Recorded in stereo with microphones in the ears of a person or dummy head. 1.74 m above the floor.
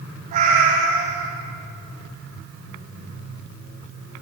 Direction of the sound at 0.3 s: 40° right (ahead or behind).